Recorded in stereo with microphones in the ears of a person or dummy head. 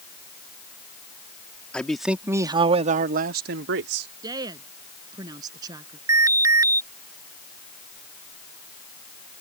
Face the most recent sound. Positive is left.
turn(degrees=-20)  # may be behind; listen again after turning